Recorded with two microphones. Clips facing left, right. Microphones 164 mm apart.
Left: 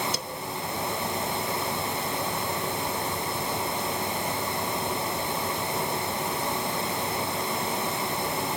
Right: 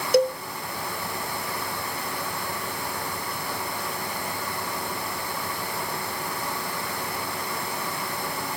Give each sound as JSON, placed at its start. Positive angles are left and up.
{"t": 0.1, "sound": "a cowbell", "side_deg": -65, "distance_m": 0.5}